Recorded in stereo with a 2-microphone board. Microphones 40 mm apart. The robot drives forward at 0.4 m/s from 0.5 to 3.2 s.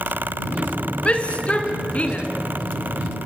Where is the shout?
30° left (ahead or behind), 3 m; by 2.3 s 35° left (ahead or behind), 3 m.